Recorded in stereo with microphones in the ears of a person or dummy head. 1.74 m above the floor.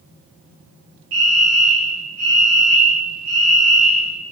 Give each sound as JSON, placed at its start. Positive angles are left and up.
{"t": 1.1, "sound": "a fire alarm", "side_deg": -75, "distance_m": 3.5}